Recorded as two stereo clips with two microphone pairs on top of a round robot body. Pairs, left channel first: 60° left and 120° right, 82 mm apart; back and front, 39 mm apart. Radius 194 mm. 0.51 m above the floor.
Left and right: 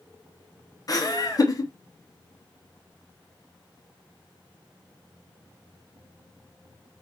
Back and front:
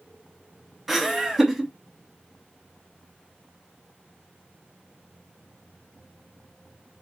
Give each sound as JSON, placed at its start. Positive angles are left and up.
{"t": 0.9, "sound": "laughter", "azimuth_deg": 80, "distance_m": 1.1}